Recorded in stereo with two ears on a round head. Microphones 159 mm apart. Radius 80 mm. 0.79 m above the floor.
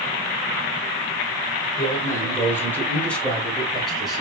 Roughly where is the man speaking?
Left.